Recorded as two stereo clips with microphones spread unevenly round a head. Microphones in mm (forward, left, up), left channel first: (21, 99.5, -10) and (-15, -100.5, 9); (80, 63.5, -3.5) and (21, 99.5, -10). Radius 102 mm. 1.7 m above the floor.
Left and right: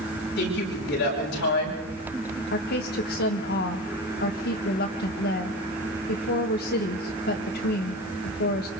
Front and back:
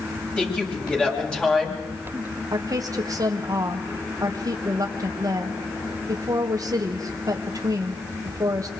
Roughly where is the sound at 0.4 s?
Ahead left.